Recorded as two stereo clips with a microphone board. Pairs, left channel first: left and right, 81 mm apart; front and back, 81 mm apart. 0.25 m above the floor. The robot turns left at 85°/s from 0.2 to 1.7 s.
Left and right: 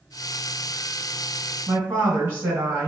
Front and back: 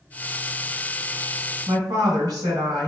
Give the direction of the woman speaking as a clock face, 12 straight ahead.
5 o'clock.